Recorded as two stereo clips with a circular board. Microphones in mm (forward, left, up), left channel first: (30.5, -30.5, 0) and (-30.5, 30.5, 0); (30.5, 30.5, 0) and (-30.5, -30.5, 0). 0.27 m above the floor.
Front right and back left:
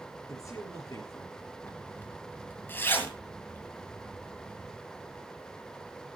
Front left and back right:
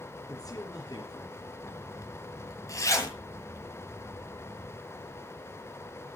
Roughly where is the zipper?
Ahead.